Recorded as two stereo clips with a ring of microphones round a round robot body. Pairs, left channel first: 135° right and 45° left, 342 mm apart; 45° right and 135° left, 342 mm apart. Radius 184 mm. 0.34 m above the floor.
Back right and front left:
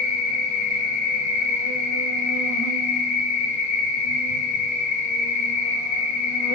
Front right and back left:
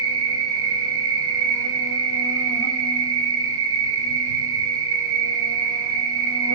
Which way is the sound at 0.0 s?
175° right.